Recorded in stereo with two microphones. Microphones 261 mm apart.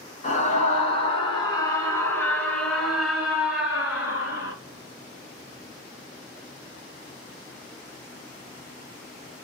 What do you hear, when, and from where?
0.2 s a scream: 30° left (ahead or behind), 1.6 m; by 4.5 s 10° right (ahead or behind), 2 m